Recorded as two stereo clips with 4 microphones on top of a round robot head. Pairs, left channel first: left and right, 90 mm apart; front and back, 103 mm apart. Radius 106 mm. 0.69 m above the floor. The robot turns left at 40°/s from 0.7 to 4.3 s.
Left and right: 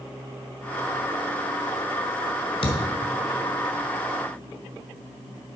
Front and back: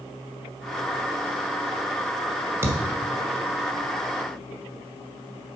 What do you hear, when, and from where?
2.6 s a thud: 115° left, 1.5 m; by 2.8 s 105° left, 1.5 m